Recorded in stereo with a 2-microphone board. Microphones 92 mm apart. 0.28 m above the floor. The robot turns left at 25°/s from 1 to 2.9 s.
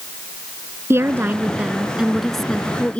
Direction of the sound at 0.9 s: 150° right.